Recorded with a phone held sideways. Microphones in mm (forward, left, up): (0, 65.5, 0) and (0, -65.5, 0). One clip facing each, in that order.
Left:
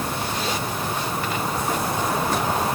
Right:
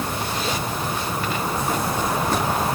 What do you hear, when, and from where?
Only background noise.